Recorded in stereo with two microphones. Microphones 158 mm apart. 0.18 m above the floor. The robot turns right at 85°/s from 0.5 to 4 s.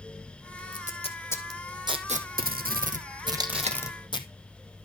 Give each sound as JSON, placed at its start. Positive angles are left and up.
{"t": 0.7, "sound": "tape being pulled", "side_deg": 70, "distance_m": 2.0}
{"t": 3.4, "sound": "tape being pulled", "side_deg": -25, "distance_m": 2.0}